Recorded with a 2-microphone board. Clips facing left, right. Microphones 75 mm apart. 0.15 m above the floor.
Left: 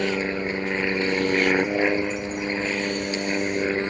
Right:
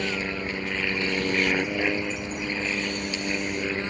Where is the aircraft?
30° left (ahead or behind).